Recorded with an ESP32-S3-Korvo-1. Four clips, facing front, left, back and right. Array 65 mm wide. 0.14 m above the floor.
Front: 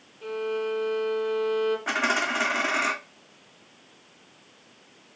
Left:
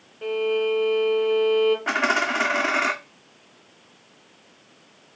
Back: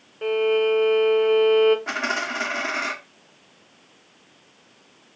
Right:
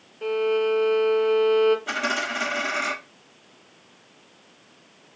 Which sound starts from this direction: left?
A dropped coin, at 1.9 s.